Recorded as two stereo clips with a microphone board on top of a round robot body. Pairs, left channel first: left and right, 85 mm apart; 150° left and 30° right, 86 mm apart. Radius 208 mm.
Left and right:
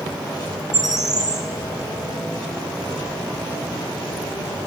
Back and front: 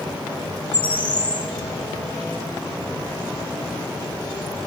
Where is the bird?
135° right, 1.7 m.